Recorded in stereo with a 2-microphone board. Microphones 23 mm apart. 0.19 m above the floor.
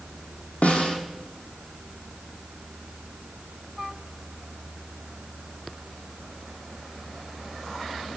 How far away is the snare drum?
About 2 m.